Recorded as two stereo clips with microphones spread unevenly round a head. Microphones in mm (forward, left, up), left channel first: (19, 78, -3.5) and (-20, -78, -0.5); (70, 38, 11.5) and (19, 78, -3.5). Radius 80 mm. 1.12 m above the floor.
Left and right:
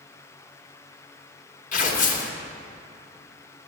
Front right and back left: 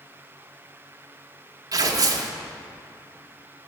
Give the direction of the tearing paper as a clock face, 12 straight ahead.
8 o'clock.